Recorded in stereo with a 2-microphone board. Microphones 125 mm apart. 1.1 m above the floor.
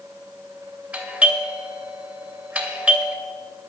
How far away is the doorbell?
About 2.5 m.